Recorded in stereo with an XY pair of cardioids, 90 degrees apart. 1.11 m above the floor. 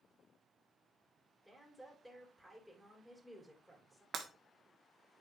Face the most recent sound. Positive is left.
turn(degrees=-70)